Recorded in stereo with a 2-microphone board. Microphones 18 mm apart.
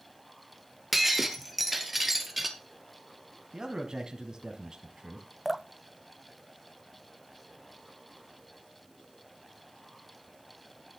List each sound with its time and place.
0.9 s breaking glass: 10° right (ahead or behind), 1.7 m
3.5 s a man speaking: 40° right (ahead or behind), 1.8 m
5.5 s dripping: 10° right (ahead or behind), 0.6 m